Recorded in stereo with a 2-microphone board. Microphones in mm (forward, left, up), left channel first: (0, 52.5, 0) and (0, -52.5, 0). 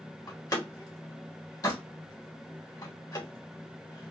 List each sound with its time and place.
0.3 s a door slam: 35° left (ahead or behind), 1.2 m